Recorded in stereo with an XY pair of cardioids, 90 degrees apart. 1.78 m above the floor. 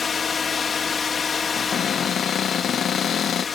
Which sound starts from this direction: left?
A cupboard door, at 1.6 s.